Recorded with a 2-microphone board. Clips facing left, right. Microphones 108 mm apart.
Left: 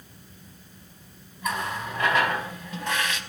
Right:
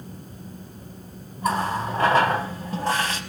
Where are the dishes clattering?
I don't hear dishes clattering.